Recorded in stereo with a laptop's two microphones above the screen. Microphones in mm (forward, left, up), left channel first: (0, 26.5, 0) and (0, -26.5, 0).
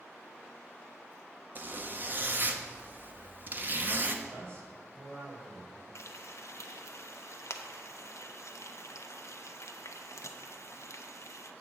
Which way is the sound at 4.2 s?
55° right (ahead or behind).